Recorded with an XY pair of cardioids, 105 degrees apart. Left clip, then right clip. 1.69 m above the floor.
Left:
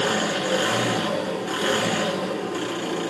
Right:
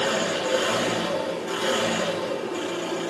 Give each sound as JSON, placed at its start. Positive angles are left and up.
{"t": 0.0, "sound": "an engine running", "azimuth_deg": 35, "distance_m": 3.0}